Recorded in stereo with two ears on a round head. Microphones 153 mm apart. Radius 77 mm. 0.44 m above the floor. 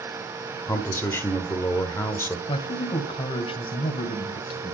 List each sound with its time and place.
0.7 s a man speaking: 15° left (ahead or behind), 1.3 m
2.5 s a man speaking: 35° left (ahead or behind), 2 m